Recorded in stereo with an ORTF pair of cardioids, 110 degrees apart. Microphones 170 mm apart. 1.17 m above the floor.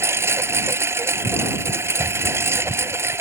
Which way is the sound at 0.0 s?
15° right.